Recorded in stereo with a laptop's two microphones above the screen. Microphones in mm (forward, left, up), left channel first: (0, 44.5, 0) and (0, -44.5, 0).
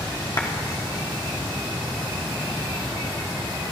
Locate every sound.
0.4 s a clap: 45° left (ahead or behind), 1.3 m